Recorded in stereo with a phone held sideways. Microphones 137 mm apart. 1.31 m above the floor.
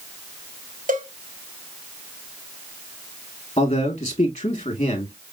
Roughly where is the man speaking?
Left.